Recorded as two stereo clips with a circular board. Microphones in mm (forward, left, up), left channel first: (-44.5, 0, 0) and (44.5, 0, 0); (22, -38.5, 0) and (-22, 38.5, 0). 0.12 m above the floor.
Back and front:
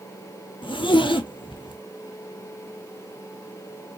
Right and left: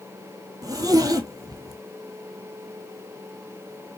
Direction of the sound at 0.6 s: 165° left.